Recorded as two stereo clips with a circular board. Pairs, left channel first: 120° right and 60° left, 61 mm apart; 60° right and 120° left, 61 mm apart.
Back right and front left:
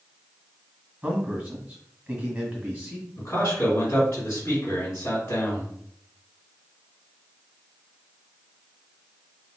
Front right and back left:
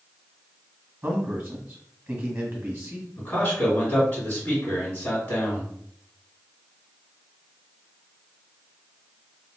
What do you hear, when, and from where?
1.0 s a man speaking: 100° left, 1.5 m
3.2 s a man speaking: 105° right, 1.8 m